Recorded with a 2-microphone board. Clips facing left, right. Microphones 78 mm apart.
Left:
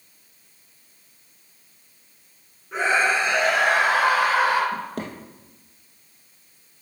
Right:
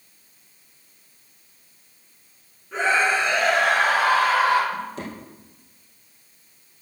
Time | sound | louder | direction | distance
2.7 | a scream | even | 10° left (ahead or behind) | 4.5 m
4.7 | a drawer | left 1 dB | 55° left (ahead or behind) | 2.5 m